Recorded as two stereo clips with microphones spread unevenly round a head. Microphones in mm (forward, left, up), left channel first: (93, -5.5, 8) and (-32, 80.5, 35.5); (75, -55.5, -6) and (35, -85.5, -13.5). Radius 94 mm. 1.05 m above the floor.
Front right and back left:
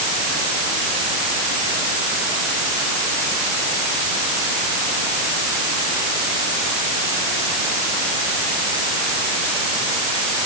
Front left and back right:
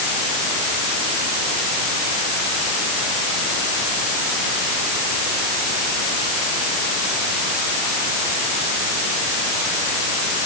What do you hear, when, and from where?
Only background noise.